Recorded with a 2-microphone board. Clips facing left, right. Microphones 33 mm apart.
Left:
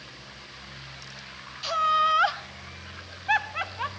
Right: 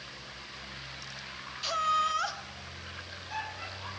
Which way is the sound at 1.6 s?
5° left (ahead or behind).